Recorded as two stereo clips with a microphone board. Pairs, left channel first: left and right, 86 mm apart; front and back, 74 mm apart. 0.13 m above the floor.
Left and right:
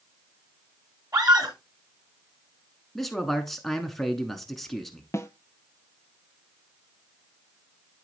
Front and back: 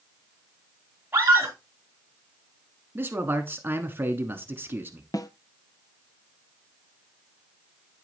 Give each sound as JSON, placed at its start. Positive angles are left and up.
{"t": 1.1, "sound": "a scream", "azimuth_deg": -120, "distance_m": 3.0}
{"t": 3.0, "sound": "a man speaking", "azimuth_deg": 175, "distance_m": 1.1}
{"t": 5.1, "sound": "a snare drum", "azimuth_deg": 30, "distance_m": 0.6}